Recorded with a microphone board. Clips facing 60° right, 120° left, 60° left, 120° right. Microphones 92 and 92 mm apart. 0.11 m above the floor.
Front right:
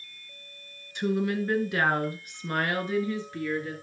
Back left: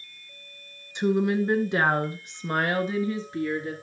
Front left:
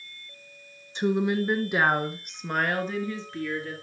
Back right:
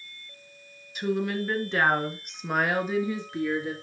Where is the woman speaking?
80° left, 1.3 m; by 3.8 s 175° right, 1.7 m.